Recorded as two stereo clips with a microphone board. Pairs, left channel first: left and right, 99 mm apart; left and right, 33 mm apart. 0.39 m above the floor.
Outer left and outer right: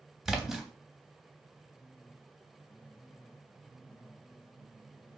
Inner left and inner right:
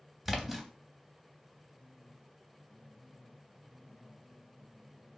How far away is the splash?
About 0.6 m.